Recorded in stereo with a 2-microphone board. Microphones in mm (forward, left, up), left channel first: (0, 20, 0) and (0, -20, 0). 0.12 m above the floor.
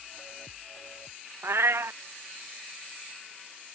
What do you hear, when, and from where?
1.4 s a cat meowing: 80° right